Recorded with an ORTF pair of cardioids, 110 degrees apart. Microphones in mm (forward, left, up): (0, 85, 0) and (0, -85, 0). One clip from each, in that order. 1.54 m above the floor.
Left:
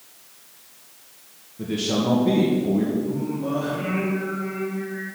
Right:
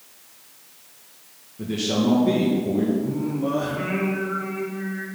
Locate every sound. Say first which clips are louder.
1.6 s a man speaking: even; 5° left, 2 m
3.0 s singing: right 1 dB; 30° right, 3 m